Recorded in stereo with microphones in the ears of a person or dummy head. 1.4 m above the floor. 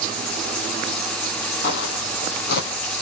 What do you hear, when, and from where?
1.6 s footsteps: 60° left (ahead or behind), 3 m; by 2.7 s 55° left (ahead or behind), 2.5 m